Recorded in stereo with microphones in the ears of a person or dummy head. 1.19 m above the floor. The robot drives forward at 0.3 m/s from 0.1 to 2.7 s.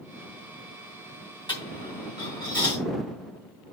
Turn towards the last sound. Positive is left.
turn(degrees=20)  # may be behind; listen again after turning